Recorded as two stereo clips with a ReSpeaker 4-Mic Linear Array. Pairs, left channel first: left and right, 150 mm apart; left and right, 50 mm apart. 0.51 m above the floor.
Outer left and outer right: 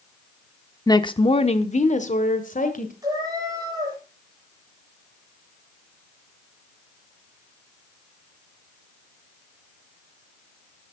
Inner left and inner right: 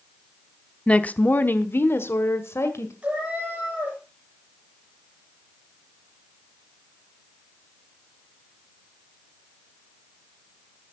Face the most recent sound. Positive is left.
turn(degrees=-25)  # may be behind; listen again after turning